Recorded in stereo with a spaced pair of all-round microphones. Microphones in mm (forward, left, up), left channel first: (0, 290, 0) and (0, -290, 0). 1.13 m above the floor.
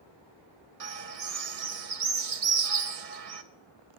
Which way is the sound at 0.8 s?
70° right (ahead or behind).